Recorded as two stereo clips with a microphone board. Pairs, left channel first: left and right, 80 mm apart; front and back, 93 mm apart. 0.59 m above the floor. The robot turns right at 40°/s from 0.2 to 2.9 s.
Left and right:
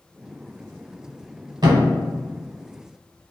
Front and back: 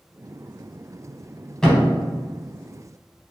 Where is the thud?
80° right, 0.7 m; by 1.9 s 70° right, 0.7 m.